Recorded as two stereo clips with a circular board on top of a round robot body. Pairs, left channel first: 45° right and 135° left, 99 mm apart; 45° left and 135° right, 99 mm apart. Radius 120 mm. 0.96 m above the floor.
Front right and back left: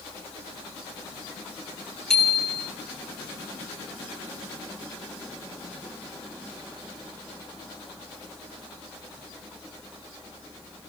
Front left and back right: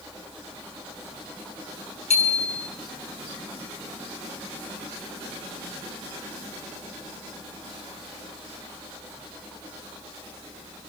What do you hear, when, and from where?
2.1 s a bicycle bell: 45° left, 8 m